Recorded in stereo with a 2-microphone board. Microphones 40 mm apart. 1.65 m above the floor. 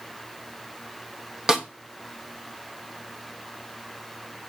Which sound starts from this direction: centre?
A snare drum, at 1.5 s.